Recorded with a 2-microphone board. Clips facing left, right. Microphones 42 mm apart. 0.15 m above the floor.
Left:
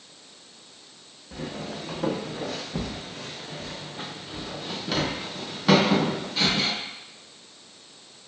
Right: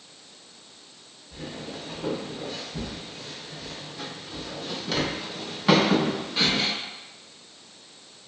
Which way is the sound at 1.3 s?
85° left.